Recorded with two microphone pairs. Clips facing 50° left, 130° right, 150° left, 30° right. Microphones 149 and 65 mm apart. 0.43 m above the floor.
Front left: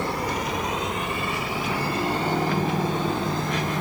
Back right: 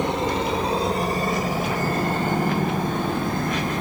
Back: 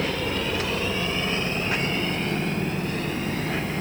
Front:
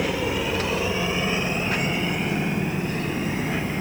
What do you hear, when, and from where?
0.0 s a helicopter: 90° right; by 3.8 s 105° right